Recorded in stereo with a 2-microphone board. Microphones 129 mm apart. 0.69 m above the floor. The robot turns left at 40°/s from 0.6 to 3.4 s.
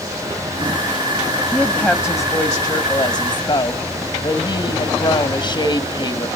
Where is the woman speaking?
170° left, 1.3 m; by 6.3 s 90° left, 1.3 m.